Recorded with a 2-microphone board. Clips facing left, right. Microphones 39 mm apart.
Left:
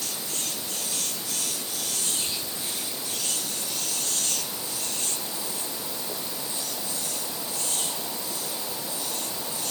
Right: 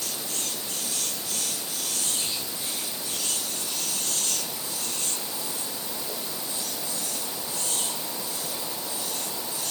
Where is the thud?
I don't hear a thud.